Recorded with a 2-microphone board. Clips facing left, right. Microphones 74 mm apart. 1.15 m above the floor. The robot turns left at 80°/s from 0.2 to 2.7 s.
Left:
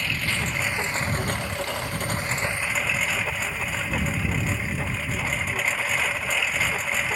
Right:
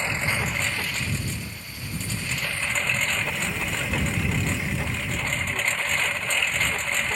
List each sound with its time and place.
0.0 s a lawn mower: 155° right; by 7.2 s 5° left
3.2 s a sliding door: 80° right